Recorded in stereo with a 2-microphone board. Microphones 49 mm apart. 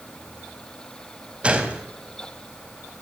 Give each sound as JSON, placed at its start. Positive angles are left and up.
{"t": 1.4, "sound": "a gunshot", "side_deg": -25, "distance_m": 3.5}